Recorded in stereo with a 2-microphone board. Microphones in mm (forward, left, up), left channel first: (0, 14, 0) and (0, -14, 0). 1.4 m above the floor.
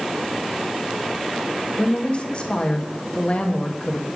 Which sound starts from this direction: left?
A woman speaking, at 1.8 s.